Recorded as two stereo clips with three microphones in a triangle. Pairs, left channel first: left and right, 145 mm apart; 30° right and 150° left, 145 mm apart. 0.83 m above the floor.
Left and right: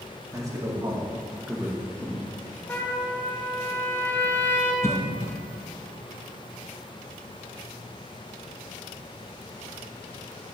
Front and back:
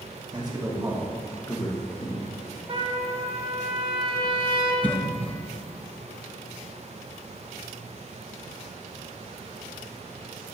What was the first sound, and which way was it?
A man speaking, 155° right.